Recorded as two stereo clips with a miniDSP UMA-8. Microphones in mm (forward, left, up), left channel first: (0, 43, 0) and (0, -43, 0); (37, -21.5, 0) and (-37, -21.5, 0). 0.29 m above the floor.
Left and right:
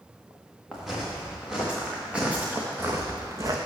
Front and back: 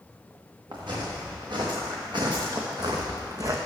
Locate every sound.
0.7 s footsteps: 175° right, 3.5 m; by 3.6 s 140° right, 1.3 m